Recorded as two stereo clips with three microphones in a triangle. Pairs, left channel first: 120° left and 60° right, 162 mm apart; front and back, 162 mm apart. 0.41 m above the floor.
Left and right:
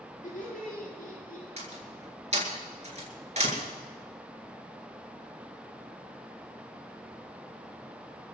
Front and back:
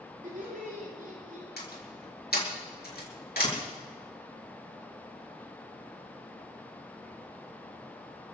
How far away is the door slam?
About 4.5 m.